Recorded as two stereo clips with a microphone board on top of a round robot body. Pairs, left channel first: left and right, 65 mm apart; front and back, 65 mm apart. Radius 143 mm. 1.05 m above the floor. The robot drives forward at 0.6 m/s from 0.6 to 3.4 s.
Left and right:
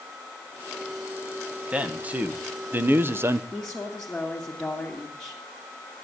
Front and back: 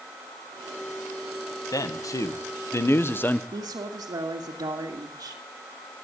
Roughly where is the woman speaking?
Behind.